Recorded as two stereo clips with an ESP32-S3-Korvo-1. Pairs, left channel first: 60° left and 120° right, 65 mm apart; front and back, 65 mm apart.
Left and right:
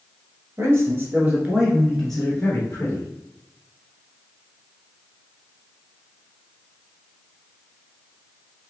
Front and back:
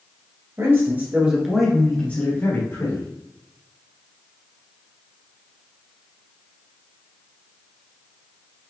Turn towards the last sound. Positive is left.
turn(degrees=10)